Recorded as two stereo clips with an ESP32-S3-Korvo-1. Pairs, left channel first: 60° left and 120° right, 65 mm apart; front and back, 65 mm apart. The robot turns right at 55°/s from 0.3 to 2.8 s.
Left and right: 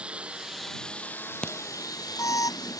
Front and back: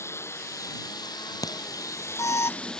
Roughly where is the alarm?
Ahead.